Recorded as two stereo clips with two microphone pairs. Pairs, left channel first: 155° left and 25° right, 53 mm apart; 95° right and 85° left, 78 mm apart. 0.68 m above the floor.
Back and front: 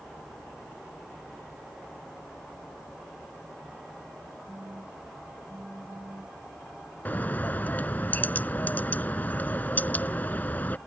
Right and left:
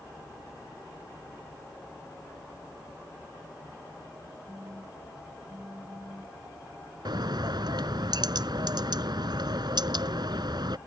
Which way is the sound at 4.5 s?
25° left.